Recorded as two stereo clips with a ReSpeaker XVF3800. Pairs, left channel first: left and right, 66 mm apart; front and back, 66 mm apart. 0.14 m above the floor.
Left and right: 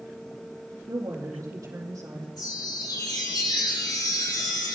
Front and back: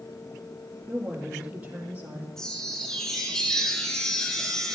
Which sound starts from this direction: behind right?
A woman speaking, at 0.9 s.